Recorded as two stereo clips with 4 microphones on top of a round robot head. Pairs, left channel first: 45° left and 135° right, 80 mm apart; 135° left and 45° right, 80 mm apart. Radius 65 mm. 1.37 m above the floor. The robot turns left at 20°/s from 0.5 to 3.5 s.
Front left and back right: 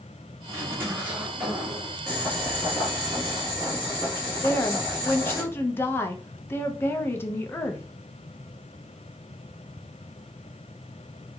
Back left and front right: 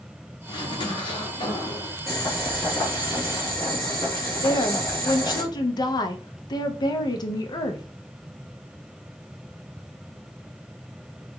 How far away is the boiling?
About 0.9 m.